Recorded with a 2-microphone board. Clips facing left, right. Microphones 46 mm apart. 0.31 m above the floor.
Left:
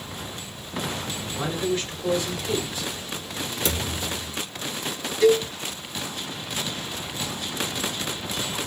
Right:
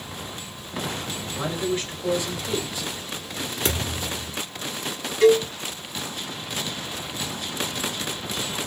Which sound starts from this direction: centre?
A man speaking, at 1.3 s.